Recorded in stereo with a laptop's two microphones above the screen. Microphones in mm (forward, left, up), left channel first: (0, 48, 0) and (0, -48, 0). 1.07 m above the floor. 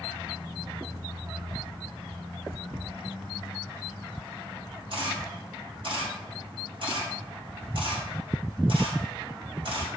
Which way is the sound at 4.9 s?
65° right (ahead or behind).